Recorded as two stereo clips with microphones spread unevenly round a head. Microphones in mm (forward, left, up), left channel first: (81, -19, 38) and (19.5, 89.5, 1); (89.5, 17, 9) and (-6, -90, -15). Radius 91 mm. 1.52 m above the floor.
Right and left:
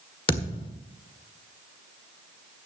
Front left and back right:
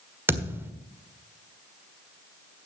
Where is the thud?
55° right, 1.7 m.